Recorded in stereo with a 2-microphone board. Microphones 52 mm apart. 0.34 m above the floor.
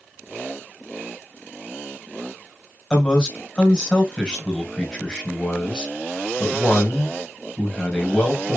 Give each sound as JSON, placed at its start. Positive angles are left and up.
{"t": 2.9, "sound": "a man speaking", "side_deg": 15, "distance_m": 1.8}